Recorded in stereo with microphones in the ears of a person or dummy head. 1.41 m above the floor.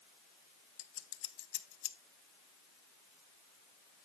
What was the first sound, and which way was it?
Scissors, 70° left (ahead or behind).